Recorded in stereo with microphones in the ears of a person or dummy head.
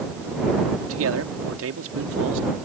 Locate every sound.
0.8 s a man speaking: 75° right (ahead or behind); by 2.5 s 80° right